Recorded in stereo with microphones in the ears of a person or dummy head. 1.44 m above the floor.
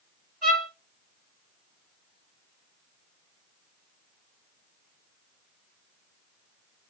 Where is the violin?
Centre (ahead or behind), 1.9 m.